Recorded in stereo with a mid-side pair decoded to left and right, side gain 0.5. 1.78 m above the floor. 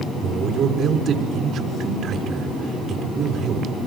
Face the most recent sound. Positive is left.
turn(degrees=-55)